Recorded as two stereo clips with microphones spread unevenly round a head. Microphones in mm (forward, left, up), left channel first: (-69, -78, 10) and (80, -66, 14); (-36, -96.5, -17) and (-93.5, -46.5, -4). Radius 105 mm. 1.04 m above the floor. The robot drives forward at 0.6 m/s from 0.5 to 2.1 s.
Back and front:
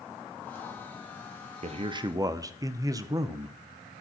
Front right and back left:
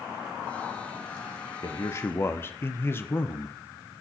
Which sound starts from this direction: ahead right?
A man speaking, at 1.6 s.